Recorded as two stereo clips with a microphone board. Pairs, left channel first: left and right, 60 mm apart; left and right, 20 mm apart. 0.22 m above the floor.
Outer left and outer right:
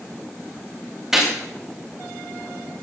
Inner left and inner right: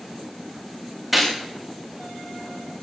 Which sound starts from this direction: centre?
A gunshot, at 1.1 s.